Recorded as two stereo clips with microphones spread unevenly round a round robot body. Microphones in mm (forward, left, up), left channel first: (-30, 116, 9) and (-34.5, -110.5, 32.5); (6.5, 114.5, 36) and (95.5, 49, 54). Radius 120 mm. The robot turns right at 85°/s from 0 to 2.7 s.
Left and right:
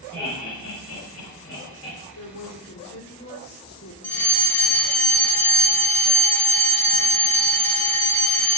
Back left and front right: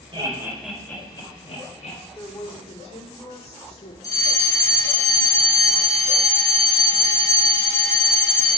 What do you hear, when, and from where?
0.1 s laughter: 10° left, 4 m; by 2.0 s 165° left, 4 m
2.1 s a woman speaking: 70° left, 2.5 m; by 3.9 s 115° left, 2.5 m
4.0 s a fire alarm: 160° left, 1.6 m